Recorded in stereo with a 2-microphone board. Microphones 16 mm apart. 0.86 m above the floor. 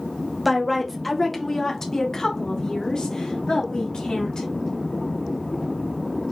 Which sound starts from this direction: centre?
A woman speaking, at 0.5 s.